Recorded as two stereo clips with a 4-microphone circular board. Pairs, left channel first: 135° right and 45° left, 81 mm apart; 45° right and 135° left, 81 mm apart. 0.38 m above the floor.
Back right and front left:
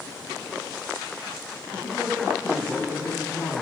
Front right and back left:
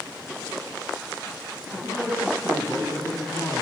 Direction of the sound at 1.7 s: 110° right.